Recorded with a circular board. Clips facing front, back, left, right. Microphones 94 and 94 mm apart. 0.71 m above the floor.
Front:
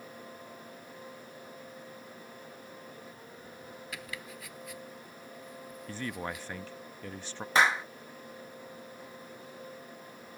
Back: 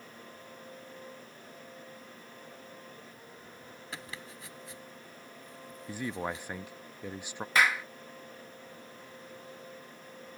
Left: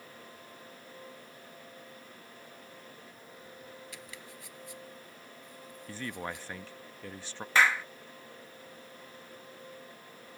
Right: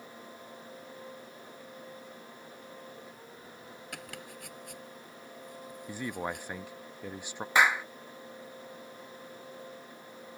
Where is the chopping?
120° right.